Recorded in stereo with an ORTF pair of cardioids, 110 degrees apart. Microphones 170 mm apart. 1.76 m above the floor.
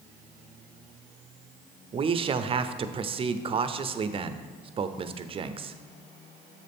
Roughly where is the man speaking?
Ahead right.